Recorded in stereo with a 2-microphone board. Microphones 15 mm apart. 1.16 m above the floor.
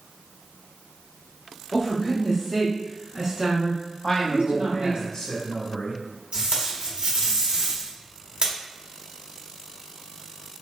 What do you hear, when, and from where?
1.7 s a woman speaking: centre (ahead or behind), 1.4 m; by 5.0 s 80° right, 1.2 m
4.0 s a man speaking: 30° left (ahead or behind), 0.9 m
6.3 s tape being pulled: 75° right (ahead or behind), 1.1 m